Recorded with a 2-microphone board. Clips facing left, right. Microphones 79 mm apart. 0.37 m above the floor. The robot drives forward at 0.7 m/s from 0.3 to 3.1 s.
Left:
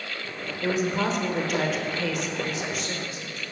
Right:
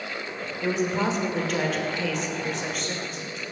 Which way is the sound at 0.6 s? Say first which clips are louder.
Even; 5° left (ahead or behind).